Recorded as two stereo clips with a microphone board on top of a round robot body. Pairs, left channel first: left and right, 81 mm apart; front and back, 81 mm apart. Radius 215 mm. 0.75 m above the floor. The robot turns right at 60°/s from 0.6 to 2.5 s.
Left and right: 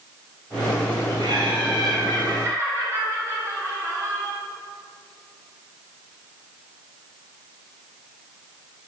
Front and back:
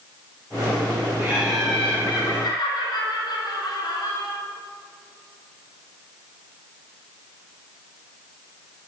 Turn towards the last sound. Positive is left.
turn(degrees=-35)